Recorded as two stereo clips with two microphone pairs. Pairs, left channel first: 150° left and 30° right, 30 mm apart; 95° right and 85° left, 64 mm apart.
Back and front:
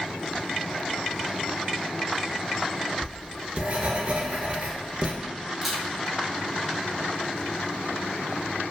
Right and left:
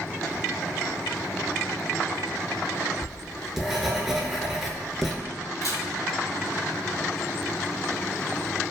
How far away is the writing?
About 0.6 m.